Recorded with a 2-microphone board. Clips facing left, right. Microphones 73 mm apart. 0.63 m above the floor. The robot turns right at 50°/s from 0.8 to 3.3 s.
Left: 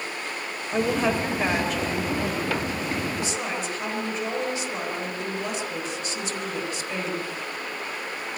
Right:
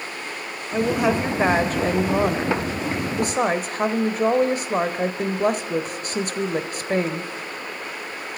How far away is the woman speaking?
About 3.5 m.